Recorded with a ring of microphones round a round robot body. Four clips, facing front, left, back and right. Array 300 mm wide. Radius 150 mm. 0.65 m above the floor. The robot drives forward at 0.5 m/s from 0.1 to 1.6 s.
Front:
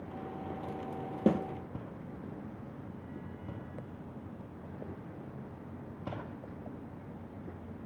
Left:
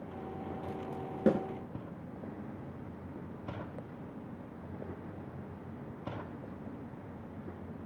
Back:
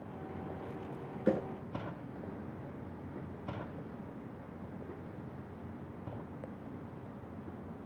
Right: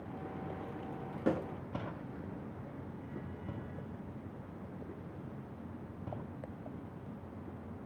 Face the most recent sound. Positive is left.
turn(degrees=30)